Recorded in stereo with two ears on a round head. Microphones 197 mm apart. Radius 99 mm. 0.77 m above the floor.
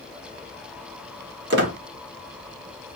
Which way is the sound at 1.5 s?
50° right (ahead or behind).